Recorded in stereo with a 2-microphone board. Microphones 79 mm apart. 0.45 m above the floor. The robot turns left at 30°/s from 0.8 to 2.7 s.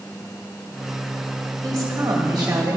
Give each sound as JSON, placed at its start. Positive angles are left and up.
{"t": 1.6, "sound": "a woman speaking", "azimuth_deg": -55, "distance_m": 1.9}